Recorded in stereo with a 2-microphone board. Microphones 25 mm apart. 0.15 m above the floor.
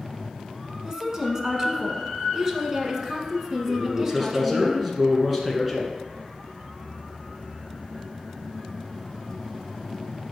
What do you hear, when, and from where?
0.8 s a woman speaking: 20° right (ahead or behind), 1.4 m
3.7 s a man speaking: centre (ahead or behind), 1.7 m